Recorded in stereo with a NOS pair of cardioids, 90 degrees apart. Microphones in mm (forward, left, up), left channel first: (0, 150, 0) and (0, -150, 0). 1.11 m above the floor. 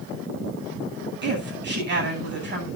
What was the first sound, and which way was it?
A woman speaking, 35° right.